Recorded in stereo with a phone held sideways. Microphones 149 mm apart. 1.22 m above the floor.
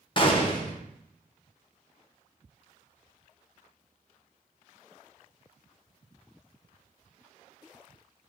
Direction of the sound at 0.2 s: 35° left (ahead or behind).